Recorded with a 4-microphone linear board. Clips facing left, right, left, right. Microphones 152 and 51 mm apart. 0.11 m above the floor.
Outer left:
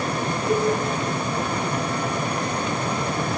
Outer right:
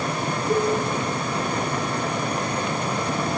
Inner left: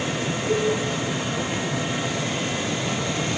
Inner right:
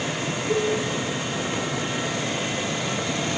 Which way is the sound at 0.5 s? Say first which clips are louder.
Even, inner left 1 dB; 10° left (ahead or behind).